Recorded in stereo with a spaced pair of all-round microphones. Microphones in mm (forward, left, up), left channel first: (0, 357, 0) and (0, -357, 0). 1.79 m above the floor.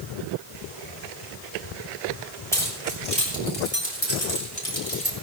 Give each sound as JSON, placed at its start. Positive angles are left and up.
{"t": 2.5, "sound": "keys jangling", "side_deg": 5, "distance_m": 3.5}